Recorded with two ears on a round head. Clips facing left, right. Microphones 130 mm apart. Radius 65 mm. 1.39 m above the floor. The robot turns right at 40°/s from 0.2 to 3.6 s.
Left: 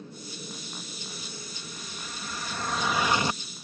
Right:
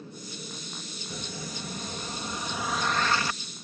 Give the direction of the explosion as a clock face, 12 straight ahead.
2 o'clock.